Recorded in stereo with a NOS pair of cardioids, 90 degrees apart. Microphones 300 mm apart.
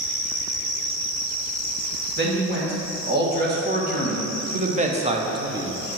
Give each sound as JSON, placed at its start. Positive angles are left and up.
{"t": 2.2, "sound": "a man speaking", "azimuth_deg": -35, "distance_m": 2.5}